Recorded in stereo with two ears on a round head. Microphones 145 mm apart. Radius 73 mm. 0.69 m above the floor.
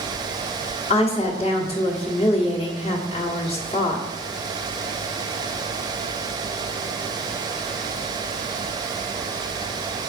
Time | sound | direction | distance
0.9 | a woman speaking | 35° left (ahead or behind) | 1.3 m